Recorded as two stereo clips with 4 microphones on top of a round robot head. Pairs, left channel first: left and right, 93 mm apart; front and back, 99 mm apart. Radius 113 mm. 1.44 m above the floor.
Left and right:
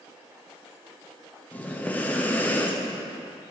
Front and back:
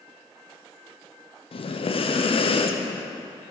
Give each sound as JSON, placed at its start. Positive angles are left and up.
{"t": 1.5, "sound": "breathing", "azimuth_deg": 15, "distance_m": 0.8}